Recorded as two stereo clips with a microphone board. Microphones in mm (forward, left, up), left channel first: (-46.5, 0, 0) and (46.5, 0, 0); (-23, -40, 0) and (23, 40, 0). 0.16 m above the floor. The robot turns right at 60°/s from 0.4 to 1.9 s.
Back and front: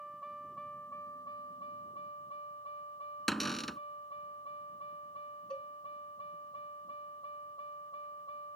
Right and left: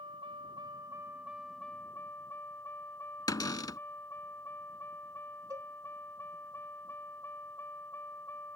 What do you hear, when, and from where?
0.0 s a vehicle: 85° left; by 8.6 s 175° left
3.3 s a cupboard door: 95° right
5.5 s a cowbell: 100° left